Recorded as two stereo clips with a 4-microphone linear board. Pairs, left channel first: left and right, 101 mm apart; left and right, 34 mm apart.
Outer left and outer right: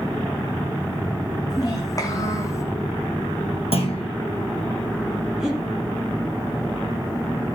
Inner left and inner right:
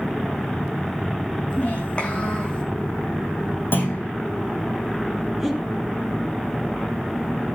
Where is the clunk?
70° left (ahead or behind), 3.5 m.